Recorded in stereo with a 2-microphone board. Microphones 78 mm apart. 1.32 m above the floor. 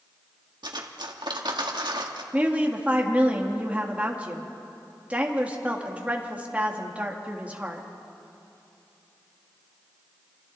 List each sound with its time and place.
0.6 s cutlery clinking: 70° right (ahead or behind), 1.5 m
2.3 s a woman speaking: 15° right (ahead or behind), 2.0 m